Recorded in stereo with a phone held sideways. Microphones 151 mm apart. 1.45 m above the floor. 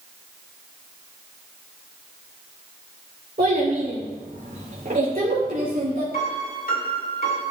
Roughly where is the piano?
Left.